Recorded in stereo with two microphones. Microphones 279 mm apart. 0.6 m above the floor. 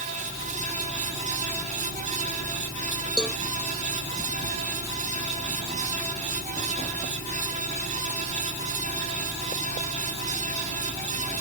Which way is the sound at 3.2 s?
5° left (ahead or behind).